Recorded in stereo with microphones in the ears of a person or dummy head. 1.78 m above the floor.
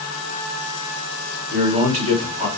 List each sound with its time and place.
1.5 s a man speaking: 40° right (ahead or behind), 1.6 m